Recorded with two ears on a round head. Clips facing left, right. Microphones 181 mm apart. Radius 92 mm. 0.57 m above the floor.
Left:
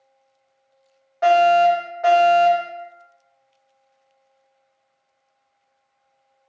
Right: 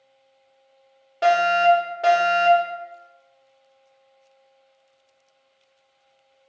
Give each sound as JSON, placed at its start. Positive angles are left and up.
{"t": 1.2, "sound": "a fire alarm", "side_deg": -40, "distance_m": 3.0}